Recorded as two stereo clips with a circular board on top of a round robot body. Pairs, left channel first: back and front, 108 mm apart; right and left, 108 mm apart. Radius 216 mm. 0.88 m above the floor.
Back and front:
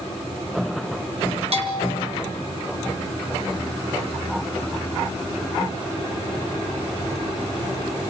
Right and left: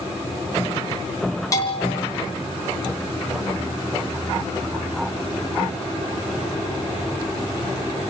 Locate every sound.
1.5 s a bell: 30° right, 4 m